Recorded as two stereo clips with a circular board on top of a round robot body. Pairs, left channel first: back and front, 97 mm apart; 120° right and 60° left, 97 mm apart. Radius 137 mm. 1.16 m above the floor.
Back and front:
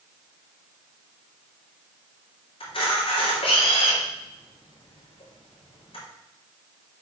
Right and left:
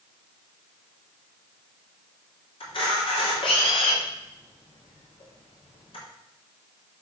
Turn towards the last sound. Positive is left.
turn(degrees=-150)